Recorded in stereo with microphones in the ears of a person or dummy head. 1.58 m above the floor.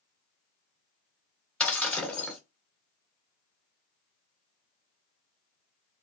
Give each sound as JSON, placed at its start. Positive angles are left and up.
{"t": 1.6, "sound": "breaking glass", "side_deg": 5, "distance_m": 2.5}